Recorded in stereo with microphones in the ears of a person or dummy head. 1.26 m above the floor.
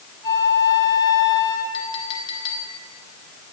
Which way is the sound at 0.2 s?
20° left (ahead or behind).